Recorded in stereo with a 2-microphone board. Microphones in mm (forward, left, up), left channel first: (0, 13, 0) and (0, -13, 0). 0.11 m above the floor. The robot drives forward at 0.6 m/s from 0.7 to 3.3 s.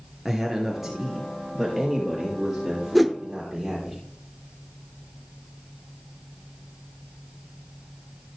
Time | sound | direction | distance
0.2 | a man speaking | 5° right (ahead or behind) | 1.7 m
3.0 | a whoosh | centre (ahead or behind) | 0.8 m